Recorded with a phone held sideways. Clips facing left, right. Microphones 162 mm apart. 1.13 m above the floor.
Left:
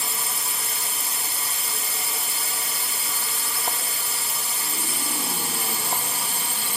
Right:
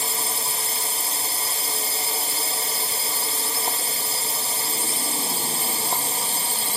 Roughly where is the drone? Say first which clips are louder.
Right 3 dB; right.